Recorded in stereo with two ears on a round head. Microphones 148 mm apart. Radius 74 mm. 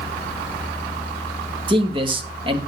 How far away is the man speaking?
About 2 m.